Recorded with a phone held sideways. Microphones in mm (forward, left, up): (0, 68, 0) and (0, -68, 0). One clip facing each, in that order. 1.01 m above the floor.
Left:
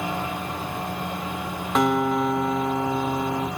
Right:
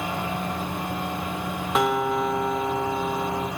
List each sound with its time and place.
1.8 s a guitar: centre (ahead or behind), 0.7 m